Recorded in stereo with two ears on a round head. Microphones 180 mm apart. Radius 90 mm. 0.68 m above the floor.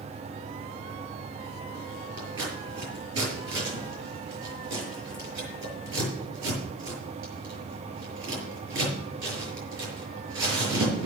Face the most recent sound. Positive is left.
turn(degrees=-65)  # may be behind; listen again after turning